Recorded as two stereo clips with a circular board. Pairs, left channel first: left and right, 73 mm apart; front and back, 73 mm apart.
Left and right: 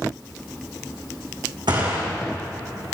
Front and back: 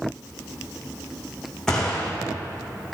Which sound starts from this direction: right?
A gunshot, at 1.7 s.